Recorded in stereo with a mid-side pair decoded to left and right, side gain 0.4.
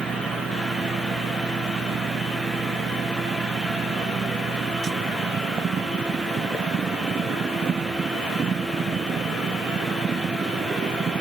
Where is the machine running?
50° right.